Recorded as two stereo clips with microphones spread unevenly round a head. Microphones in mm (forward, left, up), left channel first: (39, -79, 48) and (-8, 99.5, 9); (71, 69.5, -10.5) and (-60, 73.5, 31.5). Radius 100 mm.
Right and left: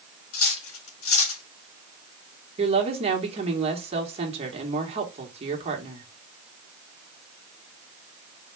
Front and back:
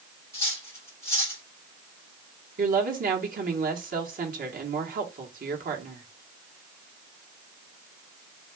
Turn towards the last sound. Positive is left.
turn(degrees=160)